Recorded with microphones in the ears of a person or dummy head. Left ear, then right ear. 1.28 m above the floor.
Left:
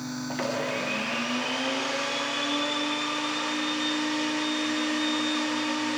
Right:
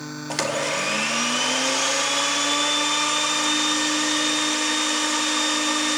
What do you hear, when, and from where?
0.3 s a blender: 75° right (ahead or behind), 2.5 m